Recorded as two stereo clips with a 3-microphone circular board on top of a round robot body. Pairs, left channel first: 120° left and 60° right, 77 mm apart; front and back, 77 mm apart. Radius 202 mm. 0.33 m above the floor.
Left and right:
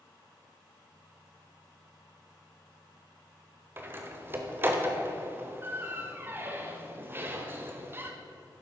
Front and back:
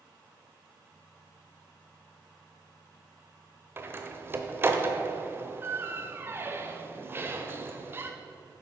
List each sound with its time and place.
3.8 s a door slam: 120° right, 1.2 m